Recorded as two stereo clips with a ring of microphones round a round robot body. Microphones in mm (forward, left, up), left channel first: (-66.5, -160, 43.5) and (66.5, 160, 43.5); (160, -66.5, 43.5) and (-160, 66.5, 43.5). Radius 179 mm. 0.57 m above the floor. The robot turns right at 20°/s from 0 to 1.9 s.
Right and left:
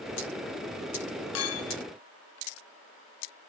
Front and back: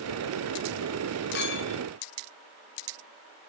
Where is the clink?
75° right, 0.6 m; by 1.8 s 70° right, 0.6 m.